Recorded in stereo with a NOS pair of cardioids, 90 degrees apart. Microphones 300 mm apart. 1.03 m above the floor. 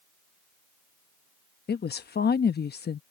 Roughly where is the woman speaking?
Ahead left.